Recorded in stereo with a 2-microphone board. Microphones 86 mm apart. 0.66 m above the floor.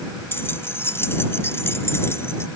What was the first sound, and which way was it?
Keys jangling, 30° left (ahead or behind).